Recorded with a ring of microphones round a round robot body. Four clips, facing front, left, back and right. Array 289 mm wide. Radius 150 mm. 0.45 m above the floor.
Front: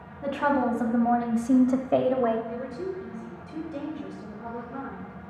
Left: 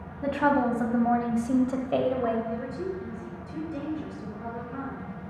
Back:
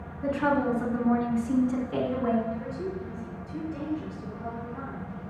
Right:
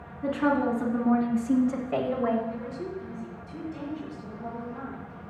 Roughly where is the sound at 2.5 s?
Ahead left.